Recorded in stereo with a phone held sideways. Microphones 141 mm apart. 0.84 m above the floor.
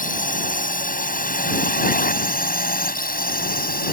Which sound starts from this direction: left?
A drone, at 0.0 s.